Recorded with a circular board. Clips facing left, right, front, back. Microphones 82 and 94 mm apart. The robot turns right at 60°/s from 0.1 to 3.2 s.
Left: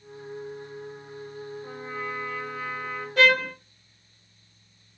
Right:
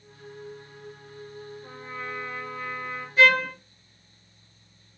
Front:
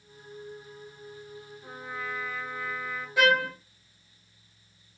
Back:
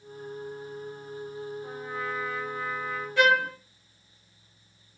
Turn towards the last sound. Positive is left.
turn(degrees=85)